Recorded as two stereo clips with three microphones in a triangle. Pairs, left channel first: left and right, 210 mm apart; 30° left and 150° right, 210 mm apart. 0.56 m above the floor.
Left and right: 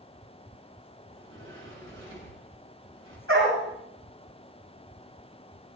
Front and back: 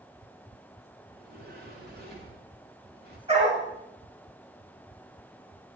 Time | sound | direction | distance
1.1 | a sliding door | 110° right | 7.5 m
3.3 | a dog barking | 90° right | 8.5 m